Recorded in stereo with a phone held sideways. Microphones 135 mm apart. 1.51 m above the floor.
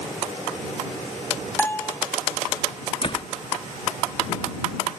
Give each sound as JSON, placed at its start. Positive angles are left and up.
{"t": 1.6, "sound": "a bell", "side_deg": 15}
{"t": 3.0, "sound": "a door slam", "side_deg": 40}